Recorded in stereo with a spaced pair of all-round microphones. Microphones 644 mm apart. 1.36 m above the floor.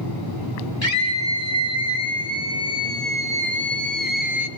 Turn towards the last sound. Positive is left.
turn(degrees=25)  # may be behind; listen again after turning